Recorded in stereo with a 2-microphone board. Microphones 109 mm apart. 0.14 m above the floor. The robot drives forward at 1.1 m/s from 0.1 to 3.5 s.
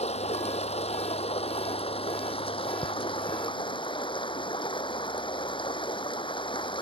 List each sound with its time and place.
0.0 s running water: 75° left (ahead or behind); by 6.8 s 50° left (ahead or behind)